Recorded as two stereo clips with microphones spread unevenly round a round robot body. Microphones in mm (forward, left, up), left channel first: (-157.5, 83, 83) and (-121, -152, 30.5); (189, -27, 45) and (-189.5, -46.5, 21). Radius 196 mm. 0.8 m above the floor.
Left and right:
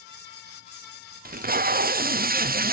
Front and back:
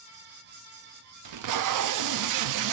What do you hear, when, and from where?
1.2 s tape being pulled: 135° right, 0.6 m